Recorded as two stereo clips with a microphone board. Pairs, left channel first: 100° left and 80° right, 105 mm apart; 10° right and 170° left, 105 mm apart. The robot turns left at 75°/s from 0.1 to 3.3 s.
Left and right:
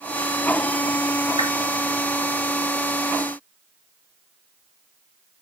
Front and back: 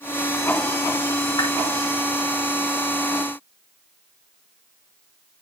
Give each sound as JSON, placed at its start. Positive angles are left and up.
{"t": 1.4, "sound": "a whoosh", "azimuth_deg": -55, "distance_m": 3.5}